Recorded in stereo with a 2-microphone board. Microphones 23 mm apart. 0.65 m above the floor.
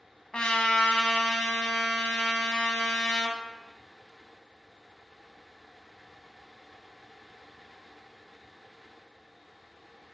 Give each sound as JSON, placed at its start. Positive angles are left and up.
{"t": 0.3, "sound": "a trumpet", "side_deg": 55, "distance_m": 0.7}